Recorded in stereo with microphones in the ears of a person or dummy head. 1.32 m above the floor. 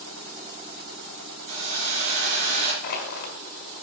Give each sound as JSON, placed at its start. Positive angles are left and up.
{"t": 1.5, "sound": "a hiss", "side_deg": -50, "distance_m": 3.5}
{"t": 2.8, "sound": "crushing", "side_deg": 50, "distance_m": 2.5}